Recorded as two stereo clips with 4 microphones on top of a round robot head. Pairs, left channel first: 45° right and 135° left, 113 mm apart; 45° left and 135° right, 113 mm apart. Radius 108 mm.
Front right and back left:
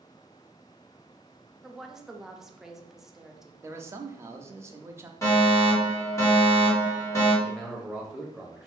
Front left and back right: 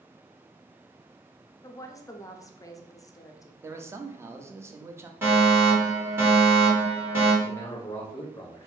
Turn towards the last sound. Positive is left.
turn(degrees=45)